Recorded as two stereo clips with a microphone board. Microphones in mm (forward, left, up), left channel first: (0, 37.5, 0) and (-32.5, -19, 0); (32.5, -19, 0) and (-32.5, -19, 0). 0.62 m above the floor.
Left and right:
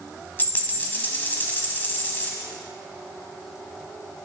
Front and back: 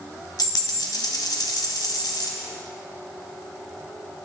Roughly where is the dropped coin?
Ahead.